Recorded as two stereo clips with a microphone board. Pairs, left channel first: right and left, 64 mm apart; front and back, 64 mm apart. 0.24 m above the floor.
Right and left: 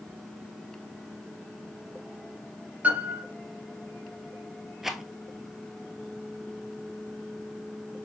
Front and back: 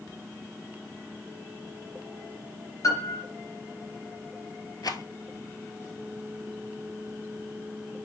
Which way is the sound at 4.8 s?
5° left.